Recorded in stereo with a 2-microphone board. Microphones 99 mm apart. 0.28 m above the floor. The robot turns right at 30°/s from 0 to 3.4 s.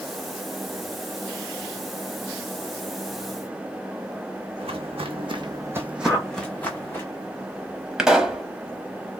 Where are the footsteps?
75° right (ahead or behind), 1.0 m; by 7.0 s 25° left (ahead or behind), 1.4 m.